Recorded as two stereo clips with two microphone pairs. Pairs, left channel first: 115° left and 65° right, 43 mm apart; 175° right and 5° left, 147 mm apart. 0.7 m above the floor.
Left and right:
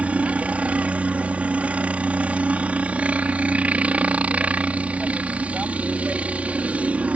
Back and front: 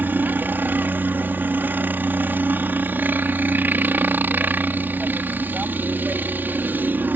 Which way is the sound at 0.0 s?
60° right.